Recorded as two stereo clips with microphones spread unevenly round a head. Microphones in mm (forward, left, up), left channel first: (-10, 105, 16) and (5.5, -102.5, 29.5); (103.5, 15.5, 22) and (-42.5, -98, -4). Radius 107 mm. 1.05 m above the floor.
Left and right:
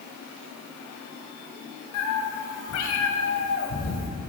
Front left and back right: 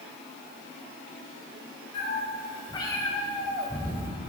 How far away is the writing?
I don't hear writing.